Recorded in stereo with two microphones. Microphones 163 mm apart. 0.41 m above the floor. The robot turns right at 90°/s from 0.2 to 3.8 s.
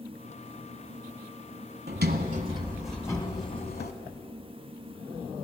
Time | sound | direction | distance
1.9 | a sliding door | 95° right | 1.0 m